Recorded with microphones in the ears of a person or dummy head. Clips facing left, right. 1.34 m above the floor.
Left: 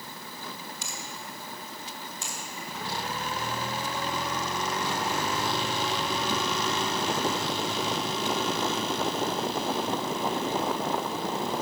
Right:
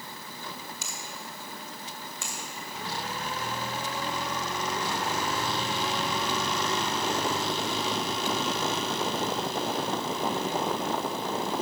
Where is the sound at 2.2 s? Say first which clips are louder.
Even; 60° right (ahead or behind), 1.8 m.